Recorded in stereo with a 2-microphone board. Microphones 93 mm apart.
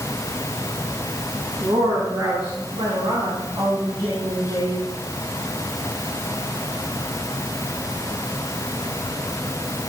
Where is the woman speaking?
60° right (ahead or behind), 4 m; by 4.8 s 70° right (ahead or behind), 8.5 m.